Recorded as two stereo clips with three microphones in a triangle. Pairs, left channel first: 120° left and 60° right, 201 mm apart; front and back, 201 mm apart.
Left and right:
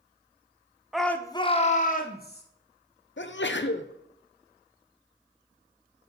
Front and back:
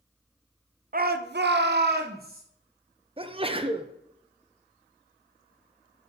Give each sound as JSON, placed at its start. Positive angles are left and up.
{"t": 0.9, "sound": "a shout", "azimuth_deg": -145, "distance_m": 0.6}
{"t": 3.2, "sound": "a sneeze", "azimuth_deg": 120, "distance_m": 0.6}